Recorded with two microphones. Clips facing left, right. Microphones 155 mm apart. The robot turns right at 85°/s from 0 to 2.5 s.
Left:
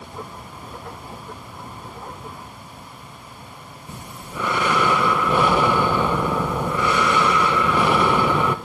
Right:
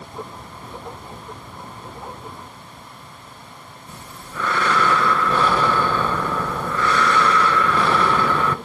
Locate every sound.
3.9 s breathing: 15° left (ahead or behind), 1.1 m